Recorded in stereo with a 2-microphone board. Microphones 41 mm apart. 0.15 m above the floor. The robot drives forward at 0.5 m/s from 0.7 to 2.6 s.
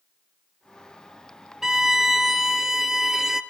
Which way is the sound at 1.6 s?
10° right (ahead or behind).